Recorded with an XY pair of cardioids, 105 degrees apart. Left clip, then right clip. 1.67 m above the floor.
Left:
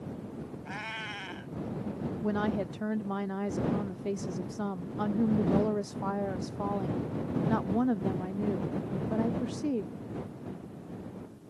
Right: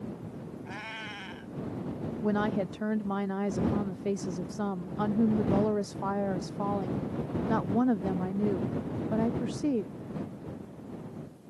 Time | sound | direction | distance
0.7 | a cat meowing | 15° left | ?
2.2 | a woman speaking | 15° right | ?